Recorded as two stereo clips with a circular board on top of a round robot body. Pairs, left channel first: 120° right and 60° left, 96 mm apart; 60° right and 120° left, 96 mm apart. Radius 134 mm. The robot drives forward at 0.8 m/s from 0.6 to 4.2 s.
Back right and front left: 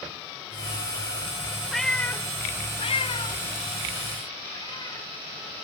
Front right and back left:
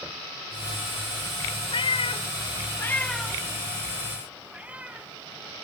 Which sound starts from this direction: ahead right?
A cat meowing, at 1.7 s.